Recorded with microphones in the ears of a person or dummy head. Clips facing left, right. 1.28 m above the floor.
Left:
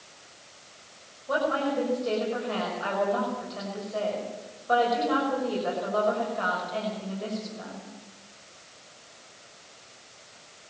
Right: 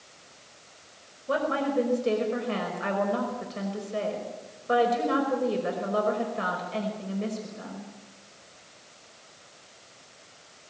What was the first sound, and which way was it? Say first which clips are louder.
A woman speaking: even; 45° right (ahead or behind).